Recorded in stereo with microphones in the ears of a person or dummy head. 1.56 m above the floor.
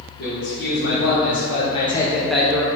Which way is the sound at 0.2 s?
55° left (ahead or behind).